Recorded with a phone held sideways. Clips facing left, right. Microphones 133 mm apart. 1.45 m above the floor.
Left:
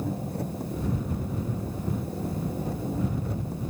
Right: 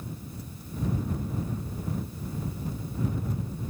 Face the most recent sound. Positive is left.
turn(degrees=70)  # may be behind; listen again after turning